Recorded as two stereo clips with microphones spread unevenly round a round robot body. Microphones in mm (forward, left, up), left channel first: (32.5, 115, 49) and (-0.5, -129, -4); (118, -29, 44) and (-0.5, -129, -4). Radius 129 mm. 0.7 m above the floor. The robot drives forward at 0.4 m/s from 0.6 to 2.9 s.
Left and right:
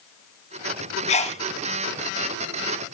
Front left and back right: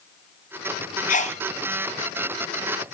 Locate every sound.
1.1 s a sneeze: 20° left, 0.6 m; by 1.4 s 30° left, 0.5 m